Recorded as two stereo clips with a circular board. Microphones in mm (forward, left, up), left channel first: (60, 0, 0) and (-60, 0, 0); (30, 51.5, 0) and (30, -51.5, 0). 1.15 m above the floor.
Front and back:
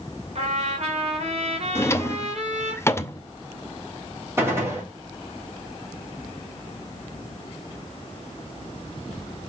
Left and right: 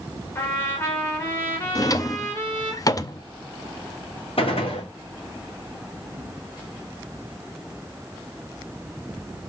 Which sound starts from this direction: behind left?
A trumpet, at 0.3 s.